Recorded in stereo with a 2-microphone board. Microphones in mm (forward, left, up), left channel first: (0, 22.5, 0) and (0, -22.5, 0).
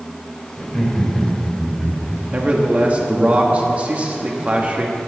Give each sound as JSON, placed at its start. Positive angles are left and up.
{"t": 0.6, "sound": "laughter", "side_deg": 10, "distance_m": 5.0}
{"t": 2.3, "sound": "a man speaking", "side_deg": -30, "distance_m": 1.9}